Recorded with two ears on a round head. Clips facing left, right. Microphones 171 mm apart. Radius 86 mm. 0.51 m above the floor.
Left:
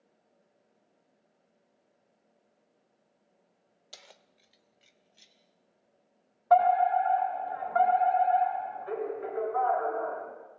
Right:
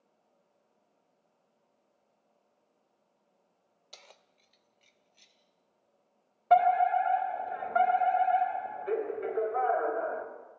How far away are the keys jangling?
About 0.8 m.